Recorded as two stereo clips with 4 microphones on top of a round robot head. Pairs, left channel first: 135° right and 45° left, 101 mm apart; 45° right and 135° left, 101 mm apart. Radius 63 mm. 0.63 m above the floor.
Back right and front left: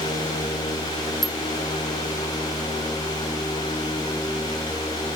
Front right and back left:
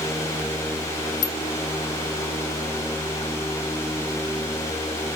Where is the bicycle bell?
50° right.